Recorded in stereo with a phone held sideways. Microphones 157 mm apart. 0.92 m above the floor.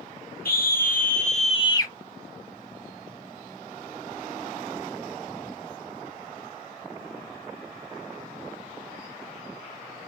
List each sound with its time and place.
0.5 s a scream: 70° left (ahead or behind), 1.5 m; by 1.9 s 20° left (ahead or behind), 0.9 m